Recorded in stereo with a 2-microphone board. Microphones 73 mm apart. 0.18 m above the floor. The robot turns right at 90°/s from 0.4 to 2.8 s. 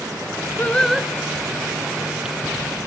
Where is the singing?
150° left, 0.6 m; by 1.1 s 165° right, 0.6 m.